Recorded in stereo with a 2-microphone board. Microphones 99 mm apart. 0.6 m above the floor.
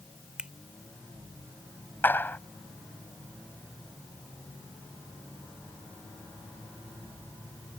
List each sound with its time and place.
0.4 s a finger snap: 10° right (ahead or behind)
2.0 s a clap: 20° left (ahead or behind)